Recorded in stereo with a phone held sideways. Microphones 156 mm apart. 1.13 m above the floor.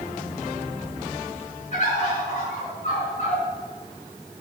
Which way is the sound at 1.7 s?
50° left (ahead or behind).